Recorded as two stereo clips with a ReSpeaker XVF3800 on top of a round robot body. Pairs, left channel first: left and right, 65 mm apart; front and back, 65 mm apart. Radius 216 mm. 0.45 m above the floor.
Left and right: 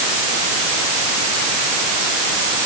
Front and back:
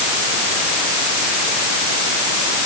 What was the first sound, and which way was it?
Only background noise.